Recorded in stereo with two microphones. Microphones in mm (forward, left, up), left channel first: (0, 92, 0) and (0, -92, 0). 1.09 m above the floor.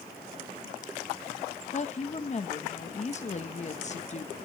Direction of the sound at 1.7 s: 40° left (ahead or behind).